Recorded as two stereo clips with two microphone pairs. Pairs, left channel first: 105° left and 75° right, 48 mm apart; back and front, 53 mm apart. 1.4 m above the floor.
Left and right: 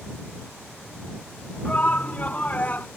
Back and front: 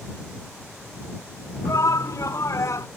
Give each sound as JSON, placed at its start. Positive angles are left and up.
{"t": 1.6, "sound": "a shout", "azimuth_deg": 165}